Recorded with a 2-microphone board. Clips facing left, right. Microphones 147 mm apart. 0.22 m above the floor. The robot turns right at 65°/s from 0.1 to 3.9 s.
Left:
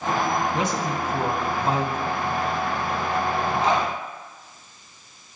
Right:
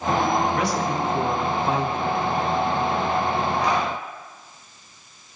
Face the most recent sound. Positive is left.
turn(degrees=20)  # may be behind; listen again after turning